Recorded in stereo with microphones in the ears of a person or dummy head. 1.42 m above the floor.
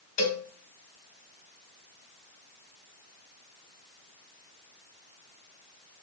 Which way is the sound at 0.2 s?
40° left (ahead or behind).